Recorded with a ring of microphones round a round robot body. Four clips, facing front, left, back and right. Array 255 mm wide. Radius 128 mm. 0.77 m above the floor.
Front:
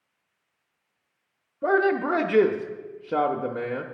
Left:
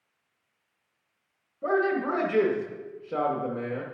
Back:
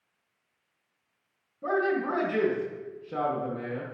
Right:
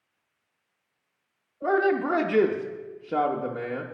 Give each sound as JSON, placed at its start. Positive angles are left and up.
{"t": 1.6, "sound": "a man speaking", "azimuth_deg": -30, "distance_m": 0.8}